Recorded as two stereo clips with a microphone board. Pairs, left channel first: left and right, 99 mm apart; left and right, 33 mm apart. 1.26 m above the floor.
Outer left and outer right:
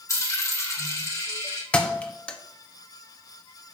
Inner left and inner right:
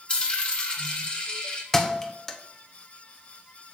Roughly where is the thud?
Centre.